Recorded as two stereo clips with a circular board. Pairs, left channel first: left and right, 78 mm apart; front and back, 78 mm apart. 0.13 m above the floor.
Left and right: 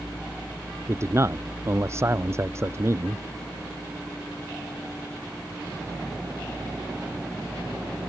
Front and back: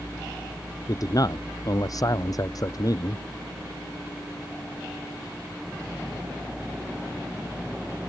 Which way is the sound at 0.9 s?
40° right.